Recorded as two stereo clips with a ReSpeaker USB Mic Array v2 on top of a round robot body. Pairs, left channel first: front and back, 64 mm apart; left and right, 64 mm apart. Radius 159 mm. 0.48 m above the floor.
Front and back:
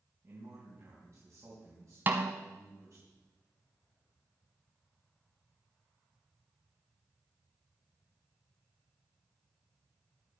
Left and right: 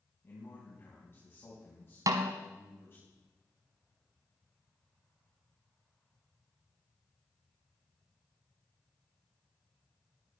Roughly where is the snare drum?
Behind right.